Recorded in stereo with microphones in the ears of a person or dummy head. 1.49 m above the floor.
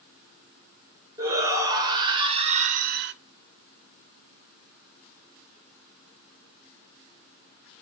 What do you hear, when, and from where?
1.2 s a shout: 15° right (ahead or behind), 1.5 m; by 3.1 s 55° right (ahead or behind), 0.5 m